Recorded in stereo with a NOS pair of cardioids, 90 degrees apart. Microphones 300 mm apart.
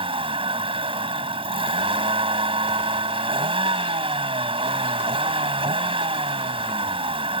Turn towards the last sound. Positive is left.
turn(degrees=-20)